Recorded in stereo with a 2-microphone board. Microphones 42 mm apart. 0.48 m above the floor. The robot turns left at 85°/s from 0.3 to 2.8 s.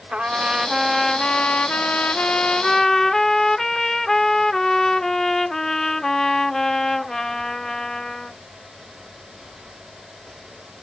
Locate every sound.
0.1 s a trumpet: 130° right; by 8.4 s 20° left